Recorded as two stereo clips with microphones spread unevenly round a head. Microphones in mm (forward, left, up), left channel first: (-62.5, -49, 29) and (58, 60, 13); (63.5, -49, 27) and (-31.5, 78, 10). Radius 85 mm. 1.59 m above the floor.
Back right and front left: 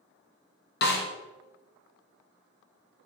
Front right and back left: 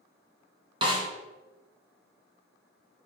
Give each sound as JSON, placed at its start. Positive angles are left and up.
{"t": 0.8, "sound": "a snare drum", "azimuth_deg": -165, "distance_m": 1.0}